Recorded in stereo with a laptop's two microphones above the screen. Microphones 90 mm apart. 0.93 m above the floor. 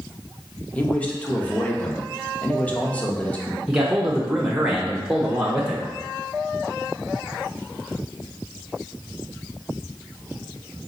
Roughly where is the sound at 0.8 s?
Centre.